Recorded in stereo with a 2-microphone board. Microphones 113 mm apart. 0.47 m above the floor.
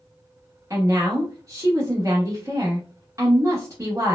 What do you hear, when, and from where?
0.7 s a woman speaking: 30° right (ahead or behind), 0.8 m